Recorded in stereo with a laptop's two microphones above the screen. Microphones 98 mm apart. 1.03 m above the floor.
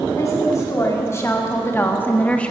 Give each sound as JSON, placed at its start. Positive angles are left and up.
{"t": 0.2, "sound": "a woman speaking", "side_deg": 35, "distance_m": 2.5}